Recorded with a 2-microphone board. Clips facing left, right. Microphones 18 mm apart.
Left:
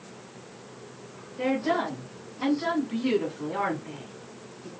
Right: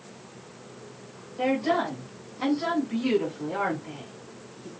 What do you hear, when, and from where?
1.4 s a woman speaking: 20° right (ahead or behind), 1.3 m; by 4.7 s 45° right (ahead or behind), 2 m